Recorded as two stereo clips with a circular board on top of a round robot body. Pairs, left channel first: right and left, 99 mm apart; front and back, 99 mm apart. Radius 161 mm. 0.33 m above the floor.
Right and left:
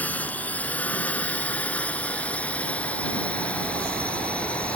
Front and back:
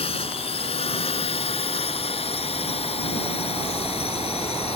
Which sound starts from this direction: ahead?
A drone, at 0.0 s.